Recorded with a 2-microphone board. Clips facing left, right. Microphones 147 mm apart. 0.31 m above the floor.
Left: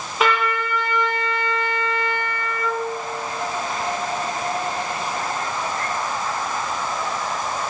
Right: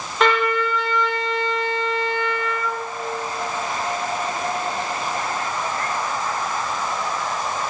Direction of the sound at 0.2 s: 5° left (ahead or behind).